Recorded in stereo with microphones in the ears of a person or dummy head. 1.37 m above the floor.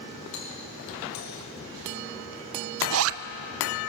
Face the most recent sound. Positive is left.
turn(degrees=-75)  # may be behind; listen again after turning